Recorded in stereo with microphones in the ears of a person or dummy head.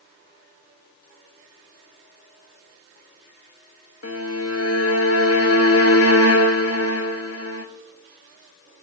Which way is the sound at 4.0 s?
70° left (ahead or behind).